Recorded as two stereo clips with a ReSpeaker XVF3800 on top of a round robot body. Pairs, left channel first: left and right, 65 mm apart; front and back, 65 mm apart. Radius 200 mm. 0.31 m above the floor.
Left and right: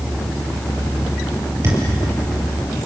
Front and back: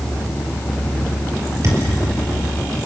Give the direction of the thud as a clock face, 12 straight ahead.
5 o'clock.